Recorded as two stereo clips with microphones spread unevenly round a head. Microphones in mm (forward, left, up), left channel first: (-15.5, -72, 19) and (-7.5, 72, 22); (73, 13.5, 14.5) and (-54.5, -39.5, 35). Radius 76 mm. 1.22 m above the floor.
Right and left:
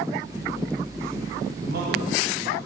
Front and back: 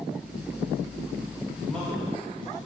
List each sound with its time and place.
1.6 s a man speaking: 105° left, 2 m